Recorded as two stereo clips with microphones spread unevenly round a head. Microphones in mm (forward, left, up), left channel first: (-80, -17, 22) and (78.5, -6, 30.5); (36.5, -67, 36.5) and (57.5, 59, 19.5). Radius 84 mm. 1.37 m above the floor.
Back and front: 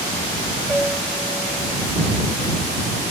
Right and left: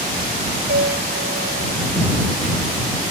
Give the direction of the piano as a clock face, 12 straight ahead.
9 o'clock.